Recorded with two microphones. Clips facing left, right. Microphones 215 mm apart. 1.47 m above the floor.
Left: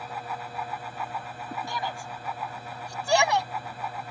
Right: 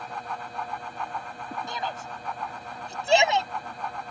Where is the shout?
20° right (ahead or behind); by 3.5 s 25° right (ahead or behind).